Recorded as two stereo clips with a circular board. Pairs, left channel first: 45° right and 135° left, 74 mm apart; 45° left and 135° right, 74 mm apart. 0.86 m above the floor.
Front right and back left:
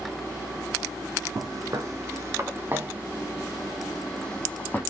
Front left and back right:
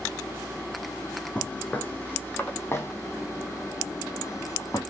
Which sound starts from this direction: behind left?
Footsteps, at 1.4 s.